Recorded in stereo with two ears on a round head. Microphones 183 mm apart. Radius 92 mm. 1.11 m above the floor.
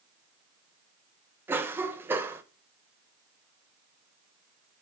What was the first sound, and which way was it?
A cough, 10° right (ahead or behind).